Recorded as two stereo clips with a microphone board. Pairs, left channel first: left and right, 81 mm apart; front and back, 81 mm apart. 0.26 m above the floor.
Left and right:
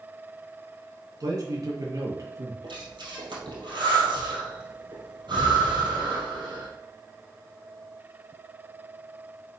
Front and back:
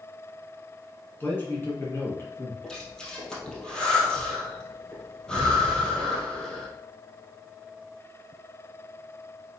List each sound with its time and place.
1.2 s a man speaking: 60° right, 2.5 m; by 2.5 s 50° right, 1.9 m
2.6 s breathing: 80° right, 2.5 m